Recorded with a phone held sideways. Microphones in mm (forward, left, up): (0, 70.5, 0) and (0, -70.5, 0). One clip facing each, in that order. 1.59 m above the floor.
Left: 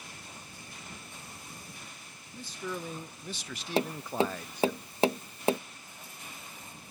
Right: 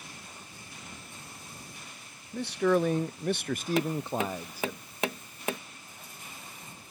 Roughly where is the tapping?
Left.